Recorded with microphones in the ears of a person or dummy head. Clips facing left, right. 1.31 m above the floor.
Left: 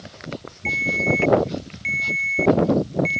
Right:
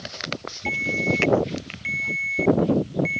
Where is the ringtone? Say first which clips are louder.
Left 2 dB; 5° right (ahead or behind).